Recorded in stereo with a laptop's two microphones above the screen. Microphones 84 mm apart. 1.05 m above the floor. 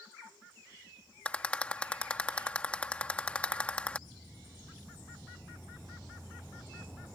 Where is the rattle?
15° left (ahead or behind).